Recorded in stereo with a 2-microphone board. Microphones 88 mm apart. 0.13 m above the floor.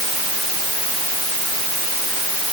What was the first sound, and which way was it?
Only background noise.